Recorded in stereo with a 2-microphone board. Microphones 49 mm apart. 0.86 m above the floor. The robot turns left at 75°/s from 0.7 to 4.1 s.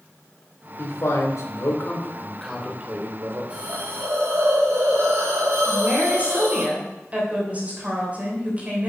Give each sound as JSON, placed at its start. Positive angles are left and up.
{"t": 0.8, "sound": "a man speaking", "azimuth_deg": 130, "distance_m": 2.5}
{"t": 3.5, "sound": "a hiss", "azimuth_deg": -25, "distance_m": 3.5}
{"t": 5.7, "sound": "a woman speaking", "side_deg": -30, "distance_m": 3.0}